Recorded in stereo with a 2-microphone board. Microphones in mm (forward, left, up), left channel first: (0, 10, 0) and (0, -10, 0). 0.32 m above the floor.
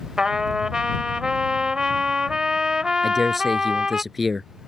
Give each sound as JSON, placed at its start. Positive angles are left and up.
{"t": 0.2, "sound": "a trumpet", "side_deg": -35}
{"t": 3.0, "sound": "a man speaking", "side_deg": -5}